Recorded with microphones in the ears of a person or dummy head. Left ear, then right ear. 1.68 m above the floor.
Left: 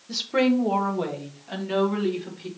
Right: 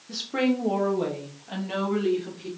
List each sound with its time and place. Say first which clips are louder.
0.1 s a woman speaking: left 4 dB; 20° left (ahead or behind), 1.5 m; by 2.5 s 10° left (ahead or behind), 3.5 m